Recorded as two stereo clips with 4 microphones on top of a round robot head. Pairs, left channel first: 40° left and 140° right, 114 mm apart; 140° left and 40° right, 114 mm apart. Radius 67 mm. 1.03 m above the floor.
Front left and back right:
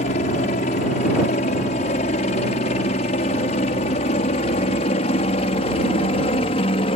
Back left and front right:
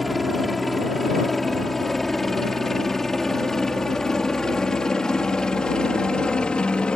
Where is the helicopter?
50° left; by 7.0 s 60° left.